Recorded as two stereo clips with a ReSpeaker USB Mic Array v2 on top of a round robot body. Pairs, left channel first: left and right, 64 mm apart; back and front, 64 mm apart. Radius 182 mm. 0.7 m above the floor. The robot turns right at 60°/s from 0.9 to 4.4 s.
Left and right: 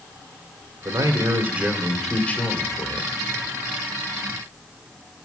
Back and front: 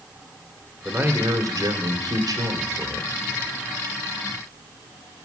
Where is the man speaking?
65° right, 2 m; by 3.2 s 75° left, 2 m.